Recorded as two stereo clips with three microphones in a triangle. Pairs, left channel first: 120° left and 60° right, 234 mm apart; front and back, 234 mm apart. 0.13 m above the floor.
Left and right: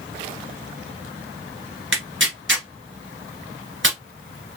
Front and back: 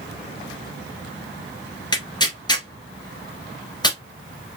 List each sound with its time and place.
1.9 s tearing paper: 65° right, 1.2 m